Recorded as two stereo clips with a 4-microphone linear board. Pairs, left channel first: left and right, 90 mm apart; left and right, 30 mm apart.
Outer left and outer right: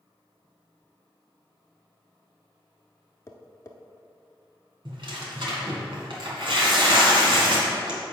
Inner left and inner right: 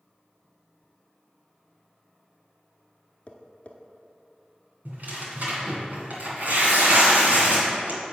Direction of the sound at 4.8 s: 65° right (ahead or behind).